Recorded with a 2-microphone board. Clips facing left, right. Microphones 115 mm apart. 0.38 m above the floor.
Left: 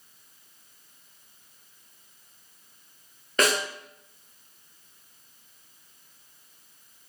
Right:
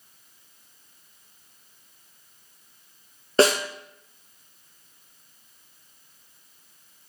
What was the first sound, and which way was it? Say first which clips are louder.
A snare drum: right 6 dB; 30° right (ahead or behind).